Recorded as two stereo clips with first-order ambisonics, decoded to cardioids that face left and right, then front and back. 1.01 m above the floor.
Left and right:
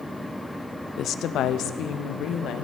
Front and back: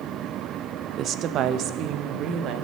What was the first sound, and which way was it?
A woman speaking, 130° left.